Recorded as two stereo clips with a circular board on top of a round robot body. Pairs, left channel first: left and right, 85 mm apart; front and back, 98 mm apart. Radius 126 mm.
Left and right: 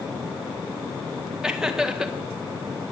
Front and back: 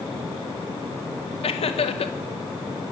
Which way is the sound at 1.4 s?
10° right.